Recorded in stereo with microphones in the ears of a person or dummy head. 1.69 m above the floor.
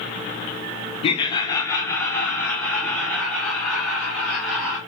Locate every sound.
1.0 s laughter: 35° left (ahead or behind), 0.6 m; by 4.8 s centre (ahead or behind), 2.5 m